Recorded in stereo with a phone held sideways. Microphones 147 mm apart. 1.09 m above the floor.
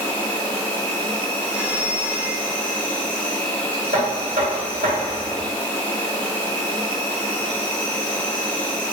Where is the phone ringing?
10° right (ahead or behind), 0.5 m.